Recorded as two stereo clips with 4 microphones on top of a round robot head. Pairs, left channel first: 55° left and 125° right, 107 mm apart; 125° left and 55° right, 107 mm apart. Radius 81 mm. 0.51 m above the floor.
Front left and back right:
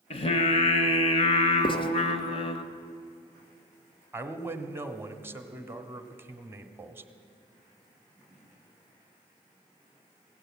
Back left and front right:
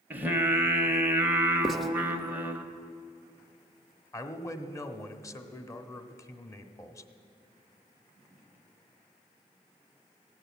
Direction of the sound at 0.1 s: 20° left.